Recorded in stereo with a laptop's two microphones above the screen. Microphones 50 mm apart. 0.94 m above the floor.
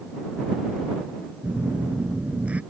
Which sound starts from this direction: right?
A phone buzzing, at 1.4 s.